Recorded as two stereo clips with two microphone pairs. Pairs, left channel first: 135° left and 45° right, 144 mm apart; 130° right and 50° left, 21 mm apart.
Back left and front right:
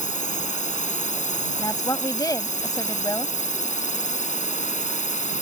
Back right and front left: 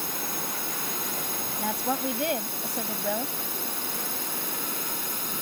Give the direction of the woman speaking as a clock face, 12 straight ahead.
9 o'clock.